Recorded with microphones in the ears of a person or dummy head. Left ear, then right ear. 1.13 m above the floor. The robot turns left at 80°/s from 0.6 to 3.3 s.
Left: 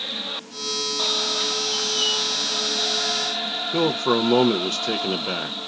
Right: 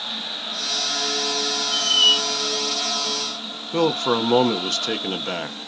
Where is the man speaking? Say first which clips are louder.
Right 2 dB; 5° right (ahead or behind), 0.6 m.